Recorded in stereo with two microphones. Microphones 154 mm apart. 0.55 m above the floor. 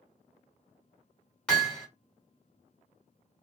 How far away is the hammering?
About 1.5 m.